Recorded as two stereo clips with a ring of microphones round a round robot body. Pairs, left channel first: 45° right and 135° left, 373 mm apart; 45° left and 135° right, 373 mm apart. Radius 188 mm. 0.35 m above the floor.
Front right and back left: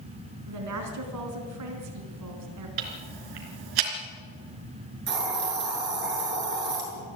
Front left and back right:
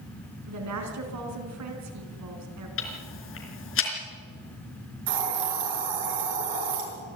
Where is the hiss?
160° right, 7 m.